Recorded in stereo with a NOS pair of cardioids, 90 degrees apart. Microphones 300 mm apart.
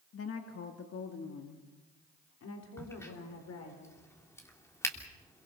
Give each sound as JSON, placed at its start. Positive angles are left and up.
{"t": 0.1, "sound": "a woman speaking", "azimuth_deg": 50, "distance_m": 2.0}
{"t": 2.8, "sound": "a crack", "azimuth_deg": 10, "distance_m": 3.0}